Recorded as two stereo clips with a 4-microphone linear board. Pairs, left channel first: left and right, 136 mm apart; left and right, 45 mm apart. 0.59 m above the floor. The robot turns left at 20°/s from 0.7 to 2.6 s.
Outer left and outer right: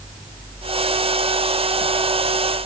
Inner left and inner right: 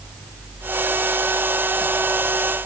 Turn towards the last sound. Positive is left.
No sound to turn to.